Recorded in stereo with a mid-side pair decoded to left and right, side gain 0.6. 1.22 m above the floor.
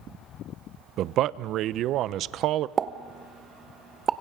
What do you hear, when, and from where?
1.0 s a man speaking: 60° right, 0.6 m
2.8 s a pop: 40° right, 0.8 m